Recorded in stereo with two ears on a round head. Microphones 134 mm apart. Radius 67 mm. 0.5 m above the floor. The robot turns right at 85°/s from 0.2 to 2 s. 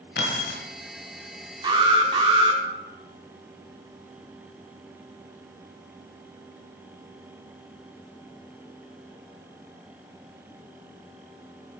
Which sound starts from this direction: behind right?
An alarm, at 1.6 s.